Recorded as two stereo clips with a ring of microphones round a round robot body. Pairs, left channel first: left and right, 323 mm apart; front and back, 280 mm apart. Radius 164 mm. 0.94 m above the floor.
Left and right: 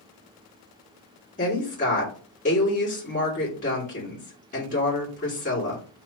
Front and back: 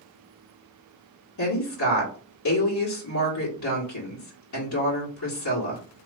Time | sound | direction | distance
1.4 | a woman speaking | 20° left | 1.8 m